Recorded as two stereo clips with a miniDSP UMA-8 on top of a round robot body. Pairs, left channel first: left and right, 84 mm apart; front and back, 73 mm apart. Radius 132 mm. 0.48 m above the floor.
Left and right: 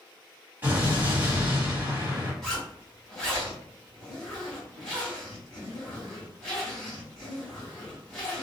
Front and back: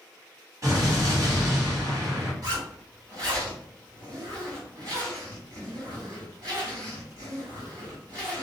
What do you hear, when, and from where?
0.6 s an explosion: 155° right, 1.6 m
2.4 s a zipper: 170° left, 1.7 m